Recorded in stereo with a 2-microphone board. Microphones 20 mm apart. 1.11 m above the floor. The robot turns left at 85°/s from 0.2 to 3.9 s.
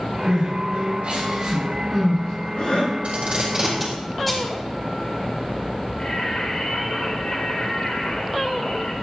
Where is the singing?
40° left (ahead or behind), 2.5 m.